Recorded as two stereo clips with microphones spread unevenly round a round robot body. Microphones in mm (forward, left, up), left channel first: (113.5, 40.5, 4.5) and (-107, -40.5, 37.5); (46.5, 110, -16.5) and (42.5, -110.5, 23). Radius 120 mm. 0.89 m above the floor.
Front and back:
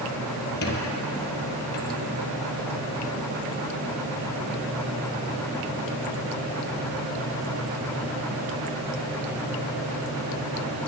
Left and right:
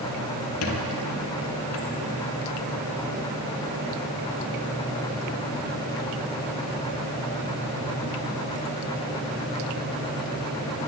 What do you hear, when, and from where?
0.6 s a squeak: 70° left, 1.5 m